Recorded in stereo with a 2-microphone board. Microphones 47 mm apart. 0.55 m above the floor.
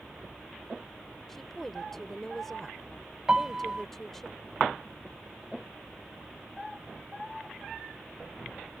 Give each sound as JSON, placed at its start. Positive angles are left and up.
{"t": 1.3, "sound": "a woman speaking", "side_deg": 5}
{"t": 3.3, "sound": "a piano", "side_deg": -15}